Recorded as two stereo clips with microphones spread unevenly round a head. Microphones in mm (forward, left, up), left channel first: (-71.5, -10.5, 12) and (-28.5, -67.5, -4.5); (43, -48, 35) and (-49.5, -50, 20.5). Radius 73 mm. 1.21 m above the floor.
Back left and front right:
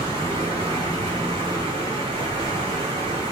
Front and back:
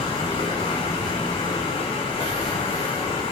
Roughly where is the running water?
Ahead.